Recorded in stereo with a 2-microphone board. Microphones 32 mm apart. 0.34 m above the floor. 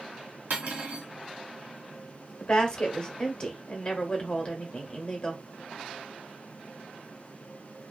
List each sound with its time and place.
0.5 s cutlery clinking: 65° right (ahead or behind), 1.5 m
2.4 s a woman speaking: 30° left (ahead or behind), 0.9 m